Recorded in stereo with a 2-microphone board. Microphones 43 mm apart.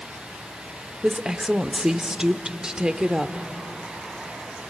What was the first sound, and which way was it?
A woman speaking, 15° right (ahead or behind).